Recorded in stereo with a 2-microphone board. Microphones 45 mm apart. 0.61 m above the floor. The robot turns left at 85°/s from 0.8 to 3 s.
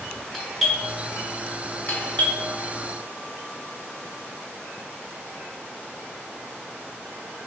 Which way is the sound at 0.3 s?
5° left (ahead or behind).